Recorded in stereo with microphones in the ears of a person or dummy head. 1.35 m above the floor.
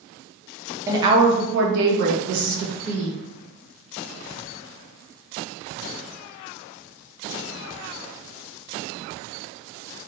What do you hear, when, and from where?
0.9 s a woman speaking: 15° right (ahead or behind), 0.8 m; by 3.1 s 80° right, 1.5 m